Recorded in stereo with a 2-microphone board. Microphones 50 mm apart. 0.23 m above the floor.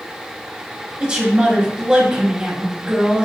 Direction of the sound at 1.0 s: 20° right (ahead or behind).